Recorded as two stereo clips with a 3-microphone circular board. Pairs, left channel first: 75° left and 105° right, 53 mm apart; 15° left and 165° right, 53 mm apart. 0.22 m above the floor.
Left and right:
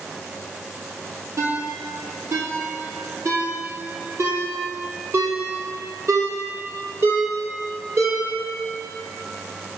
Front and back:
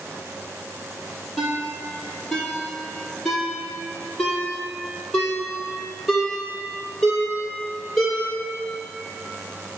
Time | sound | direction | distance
1.4 | a ringtone | 70° right | 2.5 m